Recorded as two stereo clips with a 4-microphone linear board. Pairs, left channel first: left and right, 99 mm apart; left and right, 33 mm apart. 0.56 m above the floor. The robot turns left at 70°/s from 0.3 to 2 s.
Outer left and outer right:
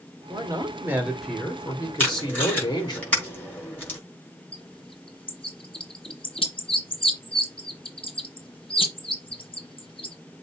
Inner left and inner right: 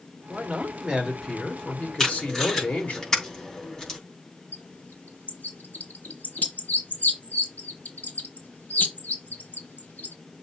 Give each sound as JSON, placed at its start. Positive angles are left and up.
{"t": 0.3, "sound": "a man speaking", "azimuth_deg": -115, "distance_m": 2.5}
{"t": 2.0, "sound": "tape being pulled", "side_deg": 20, "distance_m": 5.5}
{"t": 4.5, "sound": "a bird", "side_deg": 65, "distance_m": 2.5}